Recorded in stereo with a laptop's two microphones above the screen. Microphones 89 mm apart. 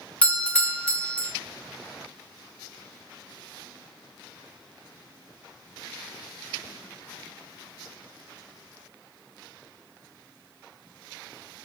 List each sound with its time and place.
0.2 s a doorbell: 15° left (ahead or behind), 1.0 m